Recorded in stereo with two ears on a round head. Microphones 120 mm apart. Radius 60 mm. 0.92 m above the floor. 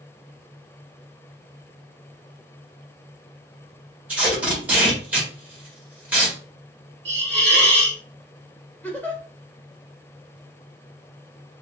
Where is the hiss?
45° right (ahead or behind), 1.6 m.